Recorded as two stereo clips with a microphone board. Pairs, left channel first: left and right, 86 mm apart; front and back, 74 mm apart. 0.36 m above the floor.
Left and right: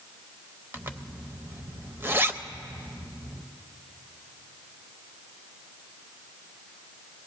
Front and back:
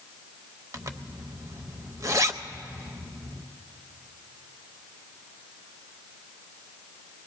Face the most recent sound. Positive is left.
turn(degrees=-145)